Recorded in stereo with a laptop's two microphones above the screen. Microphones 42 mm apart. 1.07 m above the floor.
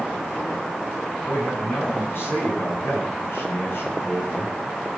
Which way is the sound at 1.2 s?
60° left (ahead or behind).